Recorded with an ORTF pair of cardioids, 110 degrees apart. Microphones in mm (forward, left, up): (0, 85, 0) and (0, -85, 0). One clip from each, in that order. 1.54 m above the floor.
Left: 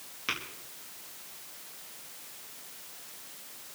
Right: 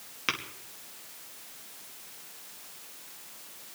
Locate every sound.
0.3 s tapping: 35° right, 2.5 m